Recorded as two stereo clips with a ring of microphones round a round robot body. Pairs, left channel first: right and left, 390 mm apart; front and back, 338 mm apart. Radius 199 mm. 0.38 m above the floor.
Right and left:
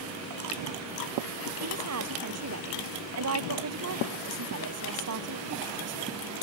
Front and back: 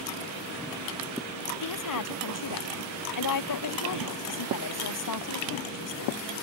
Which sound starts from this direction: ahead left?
A woman speaking, at 1.6 s.